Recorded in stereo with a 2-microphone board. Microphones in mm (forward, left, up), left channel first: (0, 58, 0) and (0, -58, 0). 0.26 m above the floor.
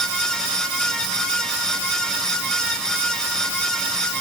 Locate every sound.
Only background noise.